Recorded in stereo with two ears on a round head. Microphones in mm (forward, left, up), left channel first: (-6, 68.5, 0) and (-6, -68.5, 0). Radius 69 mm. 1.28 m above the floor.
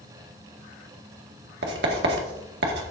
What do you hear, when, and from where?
1.6 s writing: 85° right, 1.9 m